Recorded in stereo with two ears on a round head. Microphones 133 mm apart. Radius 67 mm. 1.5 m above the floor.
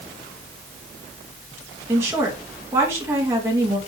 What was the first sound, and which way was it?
A woman speaking, 15° right (ahead or behind).